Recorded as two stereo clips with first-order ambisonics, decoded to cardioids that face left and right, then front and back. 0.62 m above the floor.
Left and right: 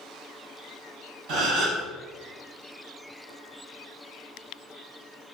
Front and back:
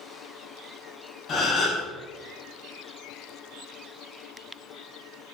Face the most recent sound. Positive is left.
turn(degrees=-60)